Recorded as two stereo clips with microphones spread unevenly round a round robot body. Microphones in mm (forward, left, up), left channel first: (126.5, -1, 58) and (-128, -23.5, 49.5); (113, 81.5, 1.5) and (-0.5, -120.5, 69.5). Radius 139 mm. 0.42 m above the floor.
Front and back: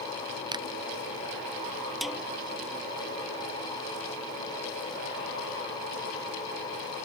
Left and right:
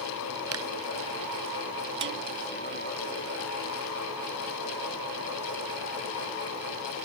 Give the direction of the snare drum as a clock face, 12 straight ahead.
3 o'clock.